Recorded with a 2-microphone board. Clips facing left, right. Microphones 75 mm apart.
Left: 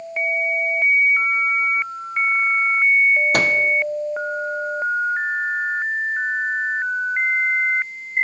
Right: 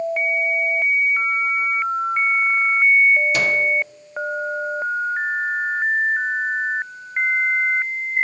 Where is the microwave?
50° left (ahead or behind), 0.5 m.